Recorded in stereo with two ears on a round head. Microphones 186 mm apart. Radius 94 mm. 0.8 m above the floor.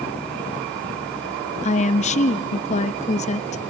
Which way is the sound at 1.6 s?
35° left (ahead or behind).